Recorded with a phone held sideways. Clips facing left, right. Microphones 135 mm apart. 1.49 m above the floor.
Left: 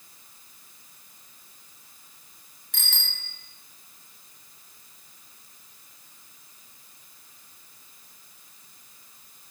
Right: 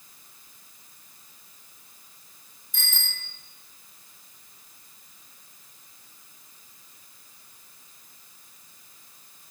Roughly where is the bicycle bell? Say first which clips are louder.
Even; left.